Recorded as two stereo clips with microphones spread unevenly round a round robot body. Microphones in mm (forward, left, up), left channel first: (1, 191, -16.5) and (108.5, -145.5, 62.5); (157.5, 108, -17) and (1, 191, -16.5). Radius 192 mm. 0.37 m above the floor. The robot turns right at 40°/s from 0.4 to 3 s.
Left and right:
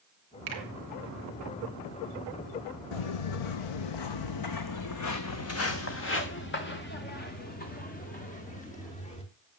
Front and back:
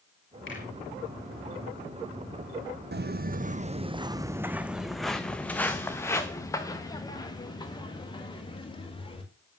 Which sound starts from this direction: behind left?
Footsteps, at 2.9 s.